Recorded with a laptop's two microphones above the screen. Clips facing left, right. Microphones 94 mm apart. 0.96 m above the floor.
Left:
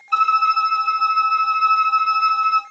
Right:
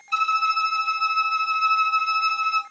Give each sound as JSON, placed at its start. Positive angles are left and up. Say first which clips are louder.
{"t": 0.1, "sound": "a violin", "louder": "left 6 dB", "side_deg": 45, "distance_m": 0.6}